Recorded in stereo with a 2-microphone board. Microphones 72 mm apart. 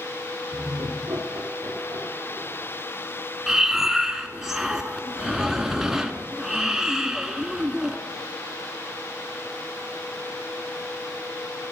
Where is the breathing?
5° right (ahead or behind), 1.2 m.